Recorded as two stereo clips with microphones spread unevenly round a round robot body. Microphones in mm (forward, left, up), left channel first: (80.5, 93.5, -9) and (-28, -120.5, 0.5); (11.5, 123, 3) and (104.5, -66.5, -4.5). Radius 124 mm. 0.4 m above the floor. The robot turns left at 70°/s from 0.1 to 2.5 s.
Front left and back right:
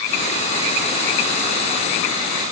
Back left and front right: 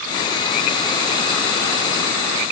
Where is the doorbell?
No doorbell in this recording.